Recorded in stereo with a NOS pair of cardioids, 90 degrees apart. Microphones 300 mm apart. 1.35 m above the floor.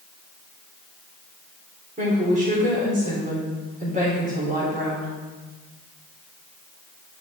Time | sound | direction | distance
2.0 | a woman speaking | 25° right | 3.5 m